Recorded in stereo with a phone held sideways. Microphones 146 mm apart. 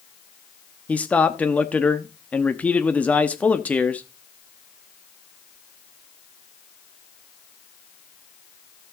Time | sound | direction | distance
0.9 | a man speaking | 10° left (ahead or behind) | 1.0 m